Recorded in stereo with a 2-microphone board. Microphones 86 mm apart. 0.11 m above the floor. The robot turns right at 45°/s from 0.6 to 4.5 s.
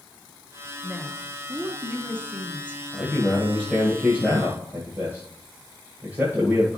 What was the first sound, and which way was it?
A woman speaking, 5° right (ahead or behind).